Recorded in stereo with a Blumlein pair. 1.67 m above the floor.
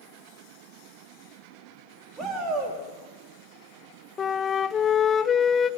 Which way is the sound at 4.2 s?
20° left.